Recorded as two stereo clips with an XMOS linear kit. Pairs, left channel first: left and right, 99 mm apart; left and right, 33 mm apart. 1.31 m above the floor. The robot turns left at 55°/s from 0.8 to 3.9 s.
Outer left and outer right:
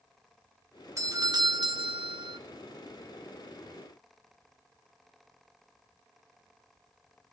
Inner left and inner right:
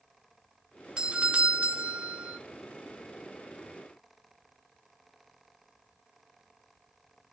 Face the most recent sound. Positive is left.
turn(degrees=160)